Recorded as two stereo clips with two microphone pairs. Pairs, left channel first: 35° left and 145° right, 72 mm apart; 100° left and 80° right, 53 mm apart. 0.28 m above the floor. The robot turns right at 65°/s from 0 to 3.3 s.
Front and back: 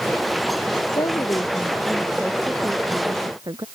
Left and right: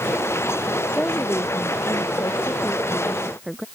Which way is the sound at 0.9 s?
35° left.